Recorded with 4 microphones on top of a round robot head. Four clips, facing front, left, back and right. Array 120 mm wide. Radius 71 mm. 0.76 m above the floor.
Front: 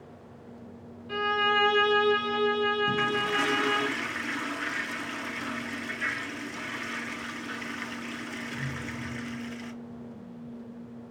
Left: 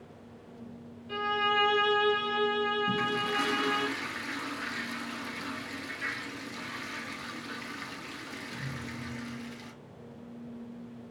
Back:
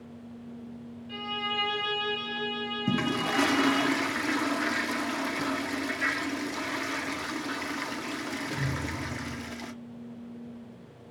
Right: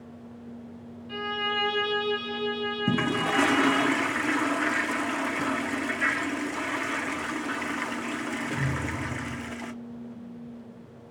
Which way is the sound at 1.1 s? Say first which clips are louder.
Left 2 dB, front 9 dB; 5° left.